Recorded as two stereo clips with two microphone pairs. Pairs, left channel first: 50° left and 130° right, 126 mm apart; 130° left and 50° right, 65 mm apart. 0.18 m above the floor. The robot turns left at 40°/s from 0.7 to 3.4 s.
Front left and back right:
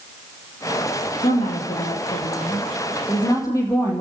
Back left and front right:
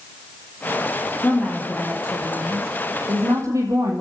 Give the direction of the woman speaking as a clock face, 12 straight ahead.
10 o'clock.